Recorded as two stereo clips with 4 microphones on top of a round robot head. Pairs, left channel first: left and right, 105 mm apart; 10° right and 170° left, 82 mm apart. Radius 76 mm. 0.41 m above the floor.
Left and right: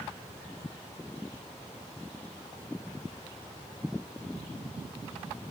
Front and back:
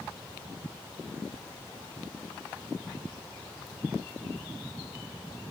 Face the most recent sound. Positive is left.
No sound to turn to.